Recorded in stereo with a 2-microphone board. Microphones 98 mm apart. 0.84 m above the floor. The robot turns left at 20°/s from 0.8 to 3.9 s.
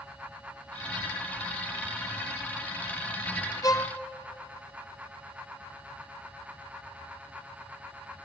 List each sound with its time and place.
3.6 s a violin: 35° left (ahead or behind), 0.9 m; by 4.0 s 40° left (ahead or behind), 0.9 m